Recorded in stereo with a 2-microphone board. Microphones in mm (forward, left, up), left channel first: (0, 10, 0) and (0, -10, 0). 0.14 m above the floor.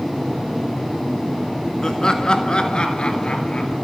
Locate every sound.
1.8 s laughter: 25° left (ahead or behind), 1.2 m; by 3.8 s 60° left (ahead or behind), 2 m